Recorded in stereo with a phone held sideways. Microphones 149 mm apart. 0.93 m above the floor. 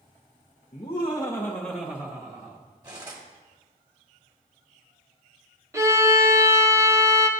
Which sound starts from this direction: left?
Laughter, at 0.7 s.